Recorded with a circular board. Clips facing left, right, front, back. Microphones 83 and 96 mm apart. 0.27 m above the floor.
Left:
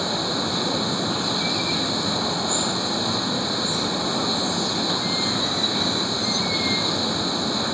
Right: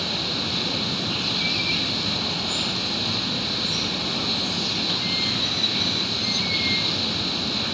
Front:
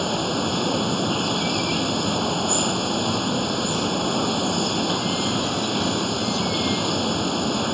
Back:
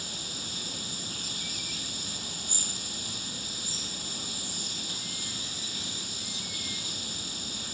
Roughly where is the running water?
Ahead left.